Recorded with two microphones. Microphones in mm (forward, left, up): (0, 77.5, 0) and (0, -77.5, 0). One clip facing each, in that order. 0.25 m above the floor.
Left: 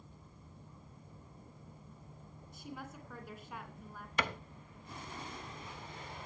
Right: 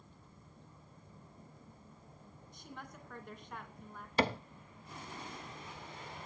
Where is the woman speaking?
5° left (ahead or behind), 2.5 m.